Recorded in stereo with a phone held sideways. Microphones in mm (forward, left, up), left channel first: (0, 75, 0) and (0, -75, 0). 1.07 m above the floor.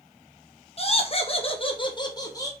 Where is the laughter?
40° left (ahead or behind), 1.1 m; by 2.5 s 20° left (ahead or behind), 1.1 m.